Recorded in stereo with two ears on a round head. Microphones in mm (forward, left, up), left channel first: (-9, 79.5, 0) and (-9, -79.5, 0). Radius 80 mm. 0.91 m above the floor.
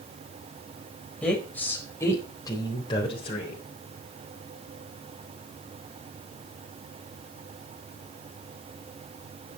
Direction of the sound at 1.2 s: 5° left (ahead or behind).